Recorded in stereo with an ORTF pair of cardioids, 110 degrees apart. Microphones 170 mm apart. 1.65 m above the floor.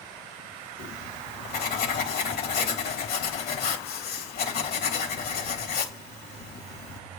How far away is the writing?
About 3 m.